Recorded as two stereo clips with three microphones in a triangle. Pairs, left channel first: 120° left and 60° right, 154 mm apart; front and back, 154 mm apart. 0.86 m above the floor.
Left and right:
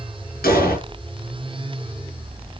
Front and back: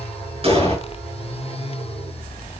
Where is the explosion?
130° left, 5.5 m.